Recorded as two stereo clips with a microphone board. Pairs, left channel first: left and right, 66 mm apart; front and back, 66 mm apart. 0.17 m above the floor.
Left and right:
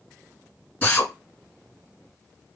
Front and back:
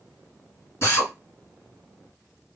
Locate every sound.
0.8 s a drill: 35° left, 2.5 m